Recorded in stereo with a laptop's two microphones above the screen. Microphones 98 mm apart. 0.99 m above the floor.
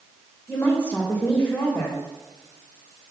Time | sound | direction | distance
0.5 | a woman speaking | 20° left (ahead or behind) | 3 m